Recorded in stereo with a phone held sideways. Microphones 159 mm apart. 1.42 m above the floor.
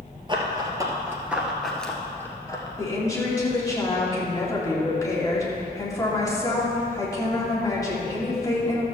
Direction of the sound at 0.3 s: 30° right (ahead or behind).